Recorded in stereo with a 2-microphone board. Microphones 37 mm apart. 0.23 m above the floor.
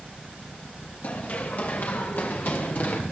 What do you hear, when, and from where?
1.0 s running footsteps: 50° left (ahead or behind), 6.5 m; by 3.0 s 55° left (ahead or behind), 4.5 m